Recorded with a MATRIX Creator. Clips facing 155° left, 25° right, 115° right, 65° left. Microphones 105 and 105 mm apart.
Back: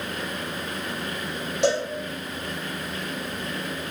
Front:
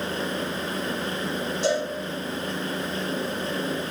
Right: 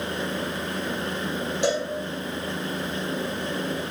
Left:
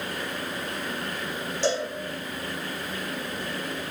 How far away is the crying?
No crying in this recording.